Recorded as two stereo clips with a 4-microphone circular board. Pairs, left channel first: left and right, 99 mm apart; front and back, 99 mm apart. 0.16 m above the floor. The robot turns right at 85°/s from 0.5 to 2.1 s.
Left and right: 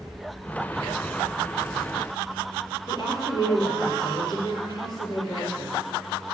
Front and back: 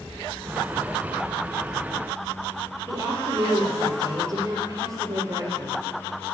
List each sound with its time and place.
2.9 s a woman speaking: 130° left, 4.5 m